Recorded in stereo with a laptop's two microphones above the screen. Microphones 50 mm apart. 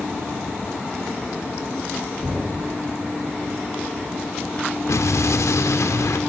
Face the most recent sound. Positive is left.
turn(degrees=80)